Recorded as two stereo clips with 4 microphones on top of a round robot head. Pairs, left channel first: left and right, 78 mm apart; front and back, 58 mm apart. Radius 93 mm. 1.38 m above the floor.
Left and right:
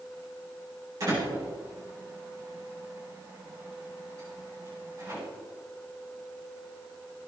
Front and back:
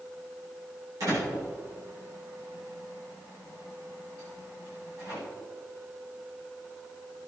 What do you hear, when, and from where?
1.0 s a door slam: 145° right, 9 m